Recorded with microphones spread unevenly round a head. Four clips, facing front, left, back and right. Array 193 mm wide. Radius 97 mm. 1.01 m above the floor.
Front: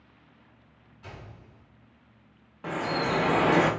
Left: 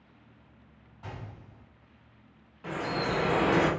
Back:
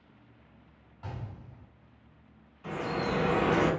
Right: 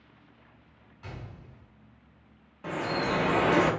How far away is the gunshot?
About 1.4 m.